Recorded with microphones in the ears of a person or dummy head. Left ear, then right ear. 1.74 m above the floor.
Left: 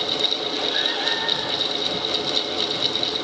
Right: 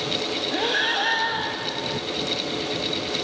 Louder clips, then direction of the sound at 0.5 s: Even; 25° right (ahead or behind).